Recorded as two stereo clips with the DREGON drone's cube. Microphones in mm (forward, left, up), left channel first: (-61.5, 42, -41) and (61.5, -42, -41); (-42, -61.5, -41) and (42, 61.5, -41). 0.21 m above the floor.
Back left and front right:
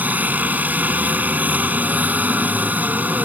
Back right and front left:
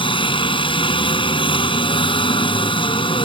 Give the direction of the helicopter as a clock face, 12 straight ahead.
4 o'clock.